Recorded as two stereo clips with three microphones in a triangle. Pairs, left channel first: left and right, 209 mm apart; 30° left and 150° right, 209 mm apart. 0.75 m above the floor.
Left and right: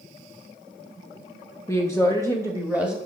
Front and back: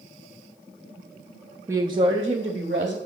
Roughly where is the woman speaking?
Behind left.